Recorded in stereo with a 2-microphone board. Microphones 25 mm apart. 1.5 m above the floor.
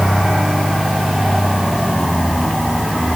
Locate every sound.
Only background noise.